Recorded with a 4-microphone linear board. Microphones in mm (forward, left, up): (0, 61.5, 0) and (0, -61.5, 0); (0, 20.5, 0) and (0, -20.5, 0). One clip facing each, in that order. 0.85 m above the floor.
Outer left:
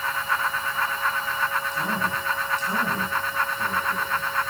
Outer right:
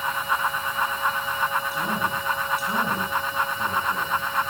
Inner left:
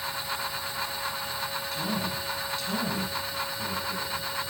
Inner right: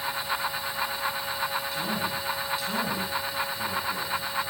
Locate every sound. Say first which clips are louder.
1.7 s a man speaking: outer right 1 dB, inner right 1 dB; 10° right (ahead or behind), 7 m